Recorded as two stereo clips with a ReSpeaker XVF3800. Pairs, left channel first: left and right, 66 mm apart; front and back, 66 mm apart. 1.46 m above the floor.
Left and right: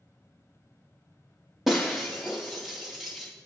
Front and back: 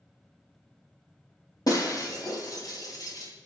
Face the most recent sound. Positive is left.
turn(degrees=-5)